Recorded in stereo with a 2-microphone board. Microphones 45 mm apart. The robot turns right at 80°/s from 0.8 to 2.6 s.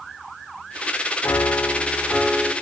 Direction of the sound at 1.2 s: 85° left.